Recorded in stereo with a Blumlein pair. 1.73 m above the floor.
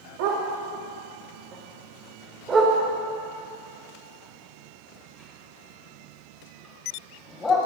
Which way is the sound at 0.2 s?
45° right.